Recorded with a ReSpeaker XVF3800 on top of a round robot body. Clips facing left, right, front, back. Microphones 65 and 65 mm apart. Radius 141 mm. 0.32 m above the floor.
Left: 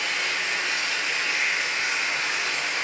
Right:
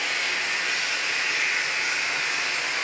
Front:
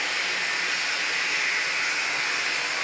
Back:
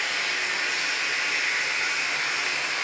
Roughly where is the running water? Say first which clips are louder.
Even, even; ahead left.